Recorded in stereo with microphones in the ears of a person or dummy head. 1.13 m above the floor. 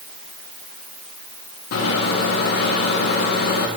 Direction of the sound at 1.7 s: 60° left (ahead or behind).